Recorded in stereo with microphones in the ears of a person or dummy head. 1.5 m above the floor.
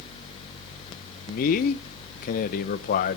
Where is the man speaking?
50° left (ahead or behind), 0.8 m.